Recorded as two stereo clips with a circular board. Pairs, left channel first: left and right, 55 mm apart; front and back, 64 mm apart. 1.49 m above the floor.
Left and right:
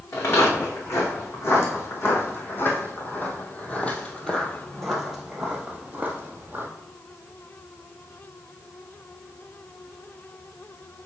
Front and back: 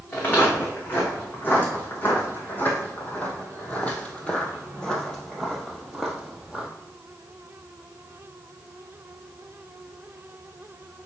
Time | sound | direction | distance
0.1 | footsteps | 60° left | 4 m